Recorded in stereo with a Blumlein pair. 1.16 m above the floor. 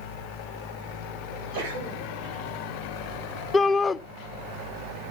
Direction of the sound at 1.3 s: 45° right.